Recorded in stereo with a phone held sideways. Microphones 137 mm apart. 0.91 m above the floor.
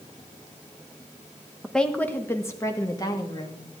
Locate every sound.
1.6 s a woman speaking: centre (ahead or behind), 0.8 m; by 3.6 s 30° left (ahead or behind), 1.7 m